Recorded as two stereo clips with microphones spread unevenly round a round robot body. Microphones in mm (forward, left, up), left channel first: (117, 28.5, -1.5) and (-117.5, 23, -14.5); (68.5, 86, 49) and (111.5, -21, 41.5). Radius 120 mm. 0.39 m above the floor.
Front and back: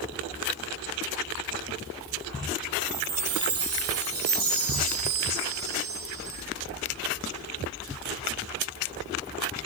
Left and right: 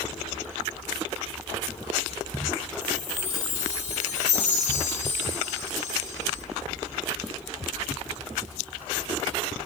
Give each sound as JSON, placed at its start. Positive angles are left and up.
{"t": 2.8, "sound": "a chime", "azimuth_deg": 135, "distance_m": 2.0}